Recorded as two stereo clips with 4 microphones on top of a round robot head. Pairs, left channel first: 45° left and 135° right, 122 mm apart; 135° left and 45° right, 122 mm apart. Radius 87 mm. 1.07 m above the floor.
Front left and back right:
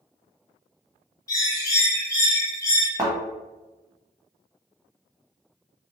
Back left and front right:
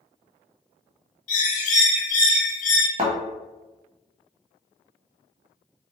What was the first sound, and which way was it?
A bird, 110° left.